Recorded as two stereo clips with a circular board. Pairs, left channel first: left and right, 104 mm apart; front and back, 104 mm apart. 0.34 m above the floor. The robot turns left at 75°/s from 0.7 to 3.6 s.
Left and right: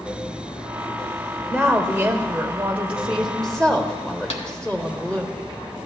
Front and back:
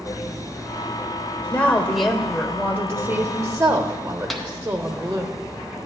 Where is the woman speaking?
45° right, 1.0 m; by 5.3 s 155° left, 1.0 m.